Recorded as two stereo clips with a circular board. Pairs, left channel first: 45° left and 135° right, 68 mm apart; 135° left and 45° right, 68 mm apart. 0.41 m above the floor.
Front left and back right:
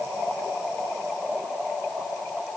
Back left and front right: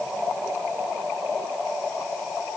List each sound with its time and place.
Only background noise.